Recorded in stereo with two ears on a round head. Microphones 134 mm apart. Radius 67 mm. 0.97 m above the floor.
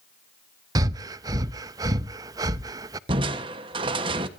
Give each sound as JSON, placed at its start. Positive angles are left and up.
{"t": 0.8, "sound": "breathing", "side_deg": -25, "distance_m": 0.6}
{"t": 3.1, "sound": "crushing", "side_deg": -30, "distance_m": 1.2}